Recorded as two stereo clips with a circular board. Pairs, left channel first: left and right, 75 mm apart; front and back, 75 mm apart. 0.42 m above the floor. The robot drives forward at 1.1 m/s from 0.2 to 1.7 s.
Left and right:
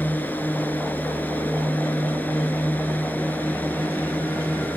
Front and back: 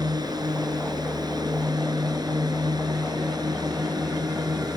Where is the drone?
155° left.